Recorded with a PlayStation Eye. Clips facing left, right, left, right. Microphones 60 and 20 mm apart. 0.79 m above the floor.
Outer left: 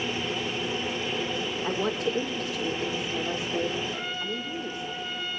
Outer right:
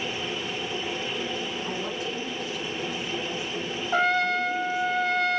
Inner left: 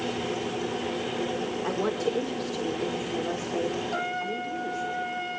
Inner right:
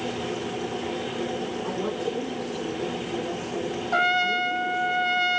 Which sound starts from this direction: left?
A woman speaking, at 1.6 s.